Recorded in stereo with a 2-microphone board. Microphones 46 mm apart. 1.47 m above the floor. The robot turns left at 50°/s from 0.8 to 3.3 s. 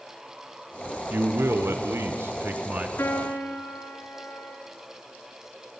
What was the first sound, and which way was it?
A man speaking, 60° right.